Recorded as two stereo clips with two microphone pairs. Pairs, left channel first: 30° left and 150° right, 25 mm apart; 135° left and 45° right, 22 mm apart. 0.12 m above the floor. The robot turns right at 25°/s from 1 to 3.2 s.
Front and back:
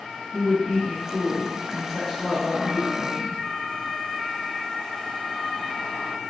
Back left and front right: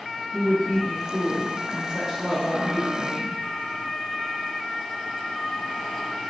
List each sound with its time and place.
0.3 s a woman speaking: 75° right, 1.1 m; by 3.4 s 20° right, 1.1 m